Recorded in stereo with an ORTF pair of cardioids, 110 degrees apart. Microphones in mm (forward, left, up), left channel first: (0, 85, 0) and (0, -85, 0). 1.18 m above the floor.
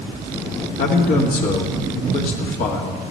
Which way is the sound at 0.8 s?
60° left.